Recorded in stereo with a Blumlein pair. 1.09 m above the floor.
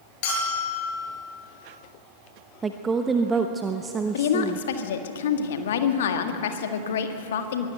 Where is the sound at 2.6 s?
15° right, 1.0 m.